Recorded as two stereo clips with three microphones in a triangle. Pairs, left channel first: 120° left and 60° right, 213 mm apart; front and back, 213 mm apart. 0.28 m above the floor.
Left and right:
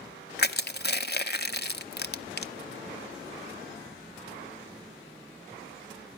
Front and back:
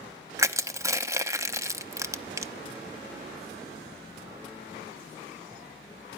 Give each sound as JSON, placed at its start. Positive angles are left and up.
{"t": 0.4, "sound": "crushing", "azimuth_deg": 105, "distance_m": 0.9}